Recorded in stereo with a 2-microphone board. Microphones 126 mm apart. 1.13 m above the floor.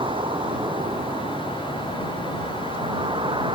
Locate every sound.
0.0 s a vehicle: 45° right (ahead or behind)